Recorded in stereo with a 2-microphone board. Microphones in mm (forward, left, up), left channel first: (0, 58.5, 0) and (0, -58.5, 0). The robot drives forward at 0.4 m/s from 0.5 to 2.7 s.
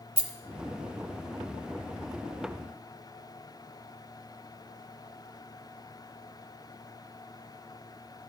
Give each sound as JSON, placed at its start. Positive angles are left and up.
{"t": 0.2, "sound": "a rattle", "side_deg": -55, "distance_m": 1.1}